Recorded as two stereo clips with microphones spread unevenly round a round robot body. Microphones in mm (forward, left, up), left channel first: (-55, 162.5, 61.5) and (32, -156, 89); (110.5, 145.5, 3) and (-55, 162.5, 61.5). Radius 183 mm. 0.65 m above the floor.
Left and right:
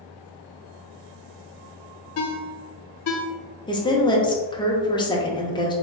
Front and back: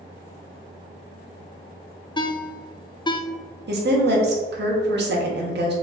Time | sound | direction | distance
2.2 | a ringtone | 60° left | 0.7 m
3.7 | a woman speaking | 170° left | 0.9 m